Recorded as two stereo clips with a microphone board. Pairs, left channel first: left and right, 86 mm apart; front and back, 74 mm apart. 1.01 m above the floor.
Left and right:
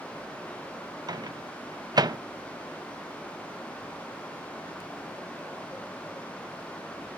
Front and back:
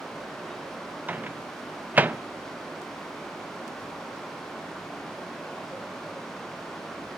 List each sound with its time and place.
1.1 s a microwave: 115° right, 0.5 m